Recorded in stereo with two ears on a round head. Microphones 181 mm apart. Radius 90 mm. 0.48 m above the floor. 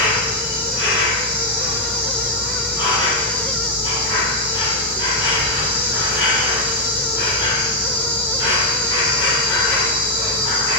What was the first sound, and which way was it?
An insect, 25° left (ahead or behind).